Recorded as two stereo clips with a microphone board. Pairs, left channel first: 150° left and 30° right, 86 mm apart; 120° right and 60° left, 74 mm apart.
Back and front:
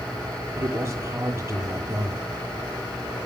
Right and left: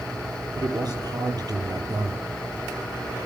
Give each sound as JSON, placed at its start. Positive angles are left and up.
{"t": 0.6, "sound": "a man speaking", "azimuth_deg": 30, "distance_m": 7.0}